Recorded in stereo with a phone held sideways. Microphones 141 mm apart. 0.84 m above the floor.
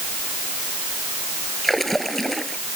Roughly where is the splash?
Centre.